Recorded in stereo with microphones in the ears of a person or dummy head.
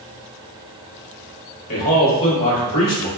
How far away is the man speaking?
About 1.2 m.